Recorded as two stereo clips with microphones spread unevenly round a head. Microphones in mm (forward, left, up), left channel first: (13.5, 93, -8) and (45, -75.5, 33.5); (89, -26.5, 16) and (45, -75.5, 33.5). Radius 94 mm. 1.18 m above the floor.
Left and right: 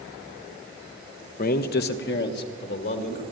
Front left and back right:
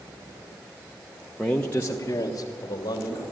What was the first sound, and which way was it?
A man speaking, 130° left.